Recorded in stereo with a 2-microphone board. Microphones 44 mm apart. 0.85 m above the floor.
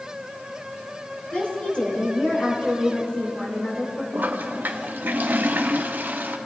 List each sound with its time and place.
1.3 s a woman speaking: 30° left (ahead or behind), 4 m
4.1 s a toilet flushing: 45° right (ahead or behind), 0.7 m